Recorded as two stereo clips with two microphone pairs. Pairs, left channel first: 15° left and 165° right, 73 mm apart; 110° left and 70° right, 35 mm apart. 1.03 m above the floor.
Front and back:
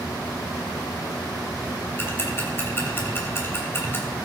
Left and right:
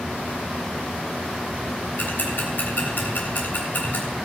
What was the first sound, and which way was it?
Ticking, 75° left.